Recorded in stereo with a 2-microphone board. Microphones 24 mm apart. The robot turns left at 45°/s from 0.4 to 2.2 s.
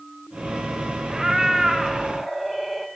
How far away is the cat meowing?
About 0.7 m.